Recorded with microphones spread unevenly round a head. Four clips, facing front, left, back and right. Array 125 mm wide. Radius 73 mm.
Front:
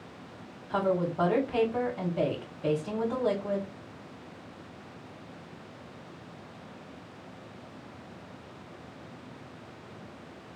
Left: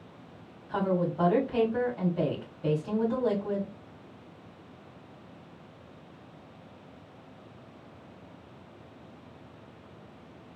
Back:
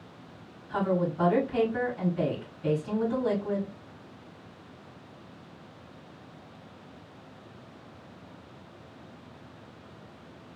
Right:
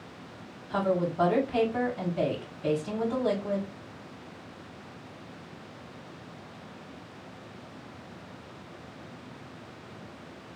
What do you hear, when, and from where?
0.7 s a woman speaking: 30° left, 3 m